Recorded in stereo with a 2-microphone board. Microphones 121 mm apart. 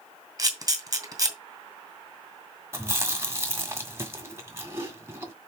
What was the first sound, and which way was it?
A camera shutter, 30° right (ahead or behind).